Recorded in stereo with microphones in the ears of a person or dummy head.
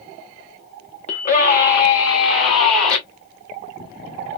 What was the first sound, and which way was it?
A scream, 35° left (ahead or behind).